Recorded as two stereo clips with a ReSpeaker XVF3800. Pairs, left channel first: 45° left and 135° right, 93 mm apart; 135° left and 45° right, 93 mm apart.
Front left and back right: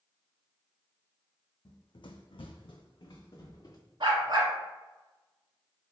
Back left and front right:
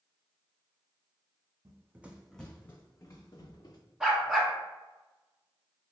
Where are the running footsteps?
10° left, 0.5 m; by 3.8 s 95° left, 1.0 m.